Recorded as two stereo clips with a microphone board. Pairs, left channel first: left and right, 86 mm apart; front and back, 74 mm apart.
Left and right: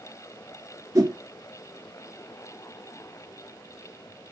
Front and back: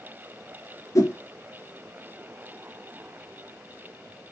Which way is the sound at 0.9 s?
45° right.